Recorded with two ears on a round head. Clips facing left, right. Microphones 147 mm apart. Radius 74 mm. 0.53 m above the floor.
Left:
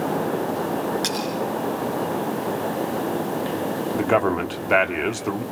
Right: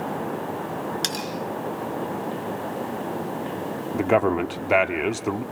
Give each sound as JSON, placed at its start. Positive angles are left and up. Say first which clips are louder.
{"t": 1.0, "sound": "cutlery clinking", "louder": "left 5 dB", "side_deg": -30, "distance_m": 3.5}
{"t": 3.9, "sound": "a man speaking", "louder": "right 1 dB", "side_deg": -5, "distance_m": 1.0}